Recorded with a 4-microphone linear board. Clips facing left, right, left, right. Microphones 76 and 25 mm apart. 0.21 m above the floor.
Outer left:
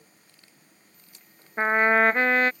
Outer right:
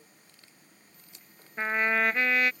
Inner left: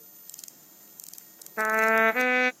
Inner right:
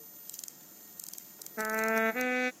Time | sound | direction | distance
1.6 | a trumpet | 35° left (ahead or behind) | ?